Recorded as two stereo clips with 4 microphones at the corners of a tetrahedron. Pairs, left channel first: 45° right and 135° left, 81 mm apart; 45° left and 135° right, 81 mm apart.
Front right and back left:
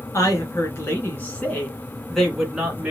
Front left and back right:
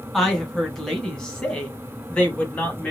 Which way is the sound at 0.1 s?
40° right.